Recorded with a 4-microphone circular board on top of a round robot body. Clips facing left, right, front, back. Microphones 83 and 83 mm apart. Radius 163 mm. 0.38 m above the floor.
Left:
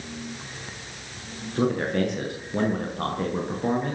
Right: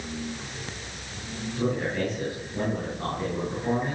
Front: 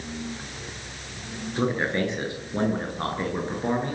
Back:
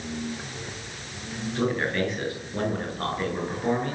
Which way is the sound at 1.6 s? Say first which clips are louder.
Left 4 dB, front 1 dB; 70° left.